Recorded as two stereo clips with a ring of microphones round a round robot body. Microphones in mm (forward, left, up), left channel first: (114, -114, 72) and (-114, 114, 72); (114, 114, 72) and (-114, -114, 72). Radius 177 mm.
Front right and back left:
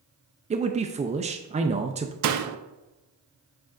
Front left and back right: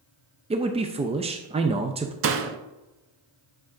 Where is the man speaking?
175° left, 0.5 m.